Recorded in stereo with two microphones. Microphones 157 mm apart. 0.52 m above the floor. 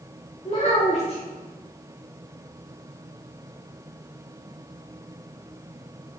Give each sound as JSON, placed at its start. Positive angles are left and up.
{"t": 0.5, "sound": "a child speaking", "side_deg": 45, "distance_m": 0.8}